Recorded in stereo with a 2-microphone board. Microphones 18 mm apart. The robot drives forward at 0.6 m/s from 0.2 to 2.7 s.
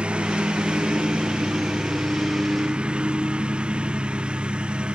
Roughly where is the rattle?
I don't hear a rattle.